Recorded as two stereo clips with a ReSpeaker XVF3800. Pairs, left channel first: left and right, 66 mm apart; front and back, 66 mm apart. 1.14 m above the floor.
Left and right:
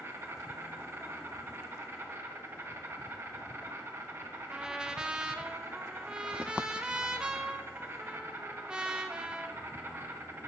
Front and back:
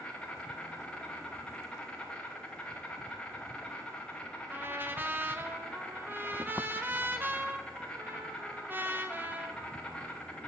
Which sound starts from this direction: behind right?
A trumpet, at 4.5 s.